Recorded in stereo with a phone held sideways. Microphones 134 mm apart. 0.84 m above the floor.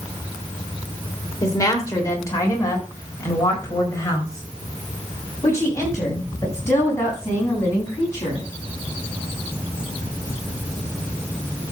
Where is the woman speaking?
25° left (ahead or behind), 3 m; by 8.4 s 20° left (ahead or behind), 8.5 m.